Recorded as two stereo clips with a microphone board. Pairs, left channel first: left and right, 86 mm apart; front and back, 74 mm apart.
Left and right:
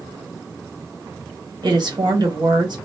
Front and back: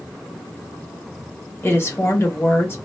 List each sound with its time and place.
1.6 s a woman speaking: 60° right, 1.0 m